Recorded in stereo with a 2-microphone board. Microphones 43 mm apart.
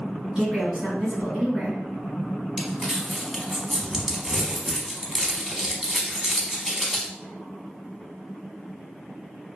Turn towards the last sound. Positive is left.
turn(degrees=-10)  # may be behind; listen again after turning